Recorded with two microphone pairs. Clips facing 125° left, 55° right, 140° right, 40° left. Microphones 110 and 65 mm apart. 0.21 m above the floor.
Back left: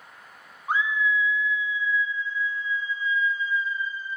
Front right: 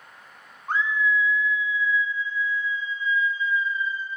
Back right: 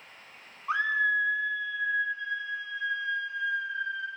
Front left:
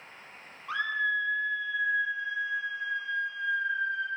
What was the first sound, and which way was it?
A scream, 160° right.